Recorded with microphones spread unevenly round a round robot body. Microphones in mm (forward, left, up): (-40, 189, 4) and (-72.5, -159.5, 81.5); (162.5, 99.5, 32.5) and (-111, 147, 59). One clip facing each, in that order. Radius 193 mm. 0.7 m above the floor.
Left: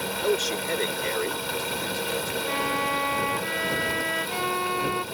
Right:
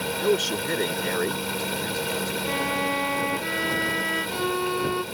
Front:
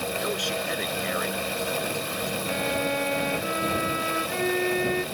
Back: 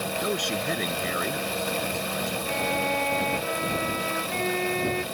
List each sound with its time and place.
0.2 s a man speaking: 160° right
2.5 s a violin: 90° right